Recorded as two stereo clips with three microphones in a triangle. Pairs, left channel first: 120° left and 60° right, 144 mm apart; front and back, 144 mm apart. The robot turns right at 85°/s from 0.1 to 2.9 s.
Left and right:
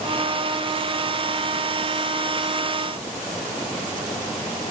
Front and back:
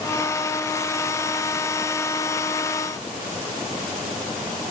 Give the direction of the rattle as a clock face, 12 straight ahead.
No rattle in this recording.